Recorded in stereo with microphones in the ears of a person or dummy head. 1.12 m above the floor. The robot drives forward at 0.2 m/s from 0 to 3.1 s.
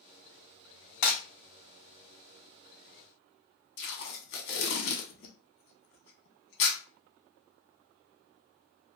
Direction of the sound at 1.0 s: 60° left (ahead or behind).